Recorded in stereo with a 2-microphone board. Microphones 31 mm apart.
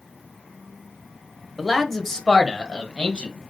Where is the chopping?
I don't hear chopping.